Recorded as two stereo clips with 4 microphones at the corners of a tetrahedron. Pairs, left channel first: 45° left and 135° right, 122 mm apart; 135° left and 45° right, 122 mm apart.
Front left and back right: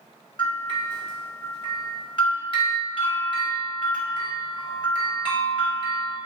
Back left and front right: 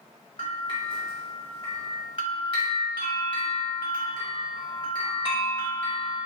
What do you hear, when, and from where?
0.4 s a bell: 90° left, 1.0 m